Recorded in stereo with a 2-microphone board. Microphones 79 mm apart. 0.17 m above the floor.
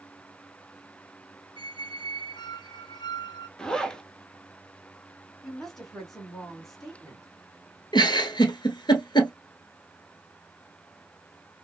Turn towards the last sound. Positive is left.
turn(degrees=70)  # may be behind; listen again after turning